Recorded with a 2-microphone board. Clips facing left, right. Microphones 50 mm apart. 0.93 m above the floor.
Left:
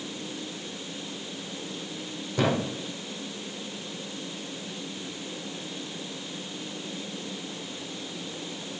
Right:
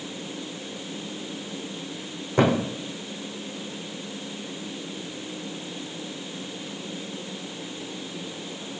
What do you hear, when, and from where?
2.4 s a thud: 40° right (ahead or behind), 3 m